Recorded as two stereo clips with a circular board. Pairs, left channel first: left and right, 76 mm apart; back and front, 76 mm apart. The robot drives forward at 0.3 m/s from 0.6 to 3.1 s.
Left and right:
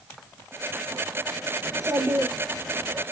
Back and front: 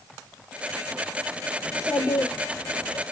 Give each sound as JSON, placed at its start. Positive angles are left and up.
{"t": 1.6, "sound": "a child speaking", "azimuth_deg": -130, "distance_m": 1.7}